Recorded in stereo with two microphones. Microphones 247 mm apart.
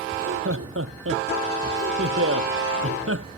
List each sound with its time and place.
0.1 s laughter: 65° right (ahead or behind)